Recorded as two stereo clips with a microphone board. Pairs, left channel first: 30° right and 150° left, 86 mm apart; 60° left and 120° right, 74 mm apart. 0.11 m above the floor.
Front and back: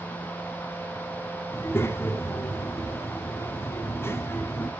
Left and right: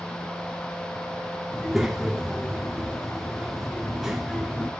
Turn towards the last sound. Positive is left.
turn(degrees=-40)